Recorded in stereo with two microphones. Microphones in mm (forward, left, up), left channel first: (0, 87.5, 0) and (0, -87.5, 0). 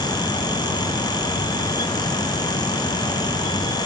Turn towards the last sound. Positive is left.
No sound to turn to.